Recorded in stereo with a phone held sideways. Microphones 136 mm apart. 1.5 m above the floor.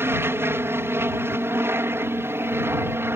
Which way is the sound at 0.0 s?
15° right (ahead or behind).